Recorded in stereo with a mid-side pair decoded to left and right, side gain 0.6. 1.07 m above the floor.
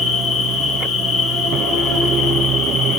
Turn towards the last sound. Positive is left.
turn(degrees=65)